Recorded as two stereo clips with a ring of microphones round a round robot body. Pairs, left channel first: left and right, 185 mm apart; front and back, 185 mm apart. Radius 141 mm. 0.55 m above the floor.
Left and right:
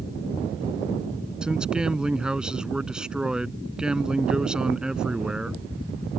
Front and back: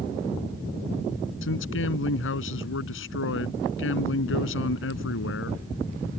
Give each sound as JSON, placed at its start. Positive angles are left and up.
{"t": 1.4, "sound": "a man speaking", "azimuth_deg": -5}